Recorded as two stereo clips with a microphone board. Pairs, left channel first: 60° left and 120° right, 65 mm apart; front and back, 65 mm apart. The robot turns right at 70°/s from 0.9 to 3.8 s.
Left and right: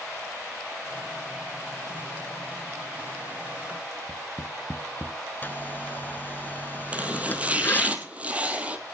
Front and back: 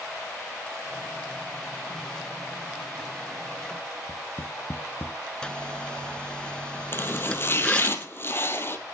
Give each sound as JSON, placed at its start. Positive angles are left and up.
{"t": 4.1, "sound": "tapping", "azimuth_deg": -55, "distance_m": 0.9}
{"t": 5.4, "sound": "a zipper", "azimuth_deg": 60, "distance_m": 0.7}
{"t": 6.9, "sound": "chopping", "azimuth_deg": -50, "distance_m": 1.6}